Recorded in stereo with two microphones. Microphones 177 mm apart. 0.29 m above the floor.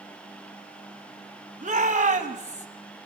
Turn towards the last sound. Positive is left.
turn(degrees=-45)  # may be behind; listen again after turning